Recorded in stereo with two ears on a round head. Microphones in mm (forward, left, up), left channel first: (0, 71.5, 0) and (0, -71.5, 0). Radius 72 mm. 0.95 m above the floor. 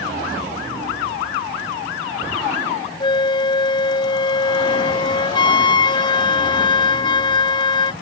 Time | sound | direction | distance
3.0 | a flute | 30° left (ahead or behind) | ?